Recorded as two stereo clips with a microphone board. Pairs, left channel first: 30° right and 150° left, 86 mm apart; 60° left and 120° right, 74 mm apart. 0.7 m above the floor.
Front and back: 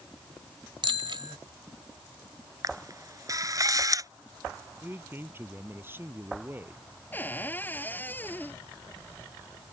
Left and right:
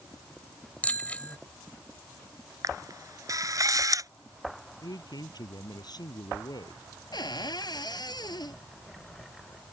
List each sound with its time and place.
0.8 s a bicycle bell: 130° left
2.6 s a camera shutter: 160° right
4.8 s a man speaking: 85° left
7.1 s a cupboard door: 40° left